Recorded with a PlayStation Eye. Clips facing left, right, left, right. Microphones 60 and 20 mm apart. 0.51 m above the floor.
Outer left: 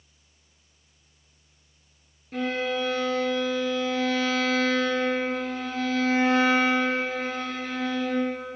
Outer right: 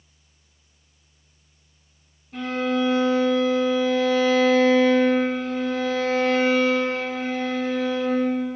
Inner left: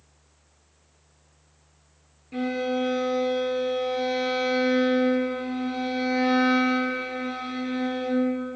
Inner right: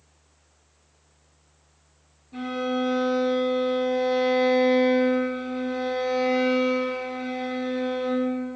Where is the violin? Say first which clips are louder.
Outer right 3 dB, inner left 1 dB; 75° left (ahead or behind), 2 m.